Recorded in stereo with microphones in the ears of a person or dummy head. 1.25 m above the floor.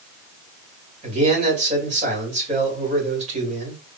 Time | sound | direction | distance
1.0 | a man speaking | 40° right (ahead or behind) | 3 m